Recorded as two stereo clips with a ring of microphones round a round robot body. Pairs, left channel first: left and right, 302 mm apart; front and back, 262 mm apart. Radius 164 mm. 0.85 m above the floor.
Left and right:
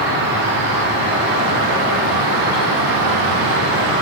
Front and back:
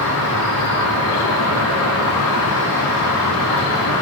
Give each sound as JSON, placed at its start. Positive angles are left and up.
{"t": 0.0, "sound": "an insect", "azimuth_deg": -35, "distance_m": 5.0}